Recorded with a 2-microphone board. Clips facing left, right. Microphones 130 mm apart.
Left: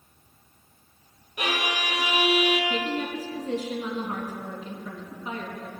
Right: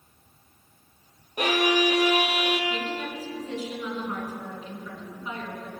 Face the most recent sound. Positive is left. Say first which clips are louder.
# left 3 dB
turn(degrees=35)  # may be behind; listen again after turning